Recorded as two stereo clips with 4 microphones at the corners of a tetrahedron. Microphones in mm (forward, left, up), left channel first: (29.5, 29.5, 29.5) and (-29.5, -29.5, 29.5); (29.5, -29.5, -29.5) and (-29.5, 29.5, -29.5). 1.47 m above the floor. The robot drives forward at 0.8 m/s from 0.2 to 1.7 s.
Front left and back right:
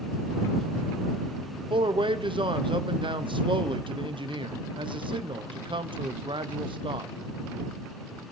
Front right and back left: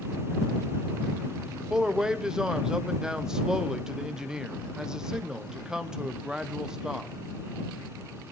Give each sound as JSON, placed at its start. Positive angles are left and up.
{"t": 1.7, "sound": "a man speaking", "azimuth_deg": -140, "distance_m": 0.7}